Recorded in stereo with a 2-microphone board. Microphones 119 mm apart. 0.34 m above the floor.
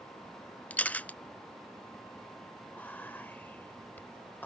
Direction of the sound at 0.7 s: 10° left (ahead or behind).